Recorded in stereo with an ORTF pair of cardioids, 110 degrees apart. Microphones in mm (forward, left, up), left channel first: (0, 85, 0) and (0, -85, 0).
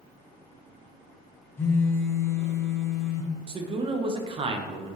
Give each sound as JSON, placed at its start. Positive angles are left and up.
{"t": 1.6, "sound": "a phone buzzing", "azimuth_deg": 15, "distance_m": 0.8}
{"t": 3.5, "sound": "a man speaking", "azimuth_deg": -30, "distance_m": 0.7}